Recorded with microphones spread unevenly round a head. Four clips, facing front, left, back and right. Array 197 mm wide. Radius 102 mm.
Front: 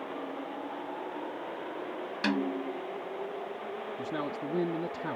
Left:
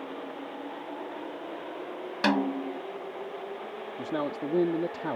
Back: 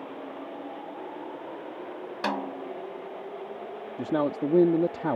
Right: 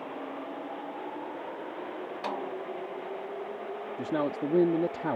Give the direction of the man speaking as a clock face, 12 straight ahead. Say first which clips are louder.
Right 2 dB, back 11 dB; 6 o'clock.